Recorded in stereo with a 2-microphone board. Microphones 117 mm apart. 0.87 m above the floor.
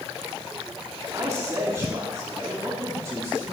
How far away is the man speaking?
About 2.5 m.